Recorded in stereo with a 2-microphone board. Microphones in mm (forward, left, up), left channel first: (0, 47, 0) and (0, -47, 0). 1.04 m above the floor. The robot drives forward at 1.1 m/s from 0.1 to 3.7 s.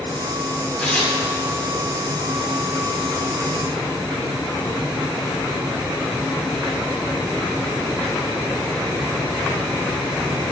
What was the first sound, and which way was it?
Tearing paper, 5° left (ahead or behind).